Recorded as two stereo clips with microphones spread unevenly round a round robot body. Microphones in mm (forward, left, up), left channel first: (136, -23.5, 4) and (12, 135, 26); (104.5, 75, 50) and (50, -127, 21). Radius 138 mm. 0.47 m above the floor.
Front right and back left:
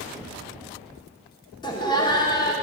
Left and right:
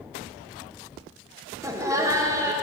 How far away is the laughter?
About 0.8 m.